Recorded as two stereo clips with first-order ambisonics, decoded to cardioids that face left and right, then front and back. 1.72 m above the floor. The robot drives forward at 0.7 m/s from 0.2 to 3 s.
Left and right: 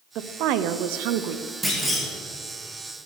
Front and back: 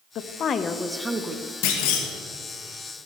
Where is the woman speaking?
50° right, 0.8 m; by 1.5 s 125° right, 0.8 m.